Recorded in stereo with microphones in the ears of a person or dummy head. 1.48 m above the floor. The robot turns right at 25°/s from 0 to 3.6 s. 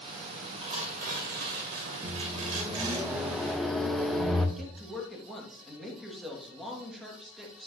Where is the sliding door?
I don't hear a sliding door.